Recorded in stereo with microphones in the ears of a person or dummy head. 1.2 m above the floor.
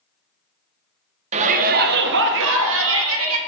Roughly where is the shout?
Right.